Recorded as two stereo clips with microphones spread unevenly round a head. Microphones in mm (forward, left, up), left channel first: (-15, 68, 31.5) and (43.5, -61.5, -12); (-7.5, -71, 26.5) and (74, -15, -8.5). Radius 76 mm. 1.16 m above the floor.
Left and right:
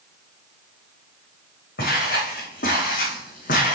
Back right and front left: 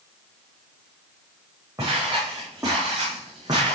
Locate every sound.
1.8 s footsteps: 110° left, 4 m; by 3.8 s 105° left, 3 m